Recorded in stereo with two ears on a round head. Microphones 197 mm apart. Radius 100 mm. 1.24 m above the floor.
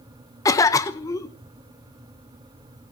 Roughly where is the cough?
Centre.